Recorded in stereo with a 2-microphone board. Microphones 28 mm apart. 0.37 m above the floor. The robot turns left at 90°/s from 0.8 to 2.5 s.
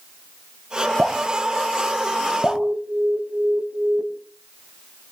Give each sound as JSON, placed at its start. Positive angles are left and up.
{"t": 1.0, "sound": "dripping", "side_deg": -35, "distance_m": 3.5}
{"t": 2.4, "sound": "an alarm", "side_deg": -65, "distance_m": 2.0}